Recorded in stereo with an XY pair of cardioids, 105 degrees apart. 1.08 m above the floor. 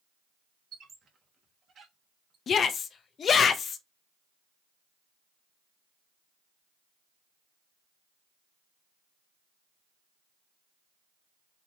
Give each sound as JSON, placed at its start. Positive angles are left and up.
{"t": 0.7, "sound": "a squeak", "azimuth_deg": -55, "distance_m": 1.2}
{"t": 2.5, "sound": "a shout", "azimuth_deg": 50, "distance_m": 0.7}